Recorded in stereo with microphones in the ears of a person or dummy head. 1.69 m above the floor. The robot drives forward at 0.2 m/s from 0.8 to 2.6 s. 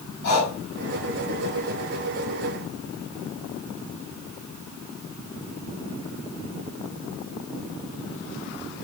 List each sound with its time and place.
0.2 s breathing: 75° left (ahead or behind), 5.5 m